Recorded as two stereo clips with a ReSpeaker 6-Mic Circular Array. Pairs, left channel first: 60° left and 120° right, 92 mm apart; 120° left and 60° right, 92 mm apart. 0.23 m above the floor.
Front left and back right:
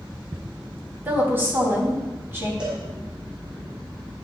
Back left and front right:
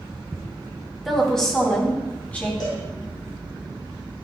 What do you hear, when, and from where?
1.1 s a woman speaking: 155° right, 1.4 m; by 2.5 s 175° right, 2.0 m
2.6 s a cowbell: 160° left, 3 m